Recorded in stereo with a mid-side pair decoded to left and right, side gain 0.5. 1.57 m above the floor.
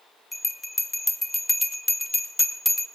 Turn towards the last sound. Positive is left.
turn(degrees=15)